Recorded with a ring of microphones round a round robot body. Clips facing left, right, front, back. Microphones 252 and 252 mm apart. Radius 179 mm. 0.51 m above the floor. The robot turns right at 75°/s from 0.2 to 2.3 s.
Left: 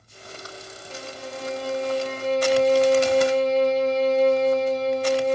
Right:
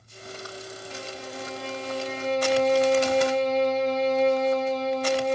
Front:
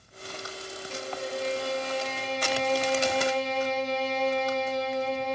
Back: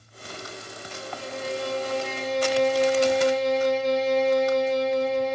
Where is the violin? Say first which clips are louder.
Left 4 dB, front 2 dB; 55° left, 0.8 m; by 5.3 s 160° left, 0.8 m.